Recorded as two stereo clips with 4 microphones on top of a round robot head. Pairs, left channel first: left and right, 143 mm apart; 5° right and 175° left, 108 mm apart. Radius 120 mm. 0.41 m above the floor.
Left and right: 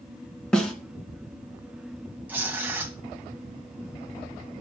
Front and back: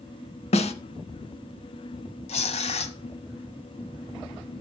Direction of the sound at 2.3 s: 10° right.